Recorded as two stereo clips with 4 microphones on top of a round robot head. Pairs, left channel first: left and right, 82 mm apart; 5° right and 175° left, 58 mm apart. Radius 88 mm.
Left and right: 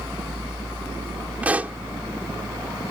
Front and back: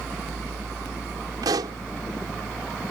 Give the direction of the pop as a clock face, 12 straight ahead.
5 o'clock.